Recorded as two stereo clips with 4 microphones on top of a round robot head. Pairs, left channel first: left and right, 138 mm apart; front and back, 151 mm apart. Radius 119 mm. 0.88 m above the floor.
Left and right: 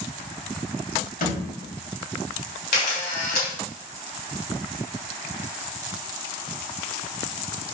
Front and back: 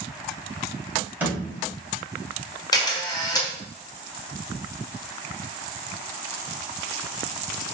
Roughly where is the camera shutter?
Ahead left.